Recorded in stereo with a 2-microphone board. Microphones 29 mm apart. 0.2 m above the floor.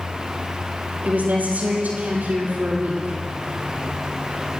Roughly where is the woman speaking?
Right.